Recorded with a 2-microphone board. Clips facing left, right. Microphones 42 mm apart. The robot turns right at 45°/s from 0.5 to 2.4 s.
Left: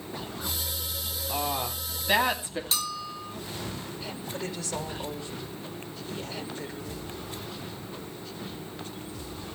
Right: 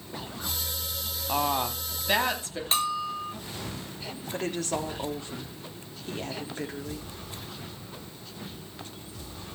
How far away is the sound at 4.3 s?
About 3.5 m.